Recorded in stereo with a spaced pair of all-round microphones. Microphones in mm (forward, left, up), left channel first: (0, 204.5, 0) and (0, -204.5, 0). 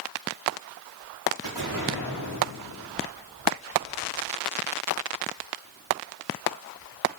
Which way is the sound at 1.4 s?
75° right (ahead or behind).